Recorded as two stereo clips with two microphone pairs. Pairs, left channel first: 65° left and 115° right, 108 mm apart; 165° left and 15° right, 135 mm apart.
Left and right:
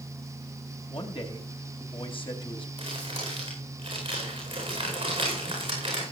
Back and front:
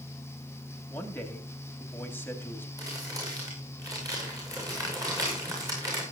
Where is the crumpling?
80° right, 8.5 m.